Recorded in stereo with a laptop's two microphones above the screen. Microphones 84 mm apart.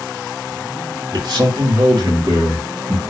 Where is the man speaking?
70° right (ahead or behind), 2.0 m; by 3.0 s 25° right (ahead or behind), 1.3 m.